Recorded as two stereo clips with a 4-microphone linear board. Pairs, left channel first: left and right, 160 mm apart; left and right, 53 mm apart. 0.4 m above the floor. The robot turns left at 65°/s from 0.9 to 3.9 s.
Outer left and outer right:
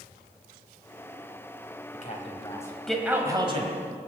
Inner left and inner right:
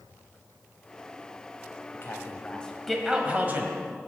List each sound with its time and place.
1.9 s a man speaking: 55° left (ahead or behind), 1.9 m; by 3.7 s 45° right (ahead or behind), 1.9 m